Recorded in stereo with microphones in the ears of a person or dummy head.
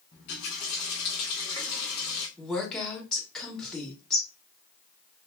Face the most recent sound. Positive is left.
turn(degrees=5)  # may be behind; listen again after turning